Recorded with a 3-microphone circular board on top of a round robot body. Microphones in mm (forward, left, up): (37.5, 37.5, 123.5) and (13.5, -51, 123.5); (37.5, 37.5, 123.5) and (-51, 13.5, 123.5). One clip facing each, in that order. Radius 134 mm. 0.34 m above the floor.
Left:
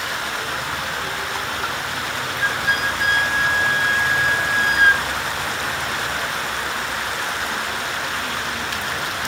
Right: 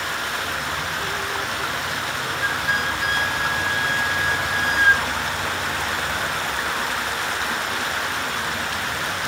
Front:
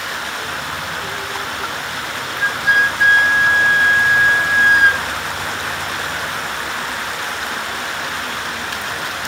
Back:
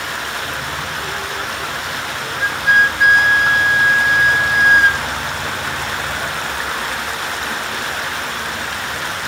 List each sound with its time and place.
2.4 s a flute: 105° left, 2.5 m